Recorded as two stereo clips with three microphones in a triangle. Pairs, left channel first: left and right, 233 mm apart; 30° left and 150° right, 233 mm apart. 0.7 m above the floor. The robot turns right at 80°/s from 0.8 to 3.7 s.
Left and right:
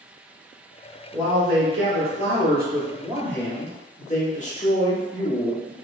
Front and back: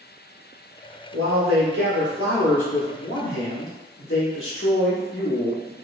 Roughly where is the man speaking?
Behind.